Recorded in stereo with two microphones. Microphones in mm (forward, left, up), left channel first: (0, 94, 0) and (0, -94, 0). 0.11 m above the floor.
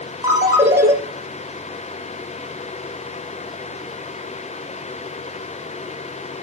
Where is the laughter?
I don't hear laughter.